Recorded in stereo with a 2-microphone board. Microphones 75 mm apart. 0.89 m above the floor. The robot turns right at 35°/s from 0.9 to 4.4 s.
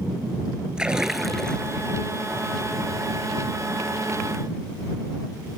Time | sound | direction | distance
0.8 | a splash | 10° right | ?